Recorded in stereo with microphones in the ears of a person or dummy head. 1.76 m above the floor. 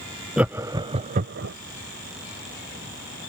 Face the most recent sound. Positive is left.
turn(degrees=-55)  # may be behind; listen again after turning